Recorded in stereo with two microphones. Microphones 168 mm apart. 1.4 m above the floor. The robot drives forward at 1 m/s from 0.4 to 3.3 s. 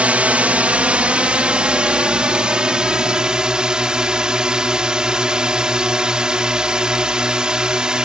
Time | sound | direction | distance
0.0 | a drone | 10° right (ahead or behind) | ?